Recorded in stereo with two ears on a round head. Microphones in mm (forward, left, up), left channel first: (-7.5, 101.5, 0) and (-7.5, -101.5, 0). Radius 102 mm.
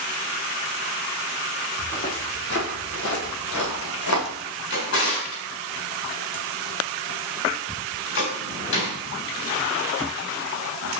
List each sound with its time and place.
1.8 s footsteps: 30° left (ahead or behind), 2.5 m; by 4.3 s 75° left (ahead or behind), 4 m
4.7 s a drawer: 60° left (ahead or behind), 3.5 m